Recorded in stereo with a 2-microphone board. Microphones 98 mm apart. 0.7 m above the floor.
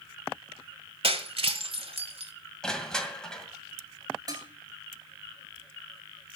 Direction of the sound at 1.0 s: 75° right (ahead or behind).